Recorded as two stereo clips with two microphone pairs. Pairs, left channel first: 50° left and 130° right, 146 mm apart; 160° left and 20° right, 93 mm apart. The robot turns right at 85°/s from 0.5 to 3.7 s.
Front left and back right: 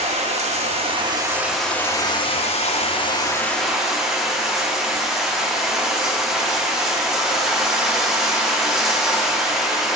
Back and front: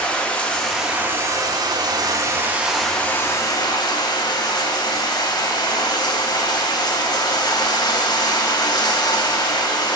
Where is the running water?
130° right, 0.7 m; by 10.0 s 145° left, 0.7 m.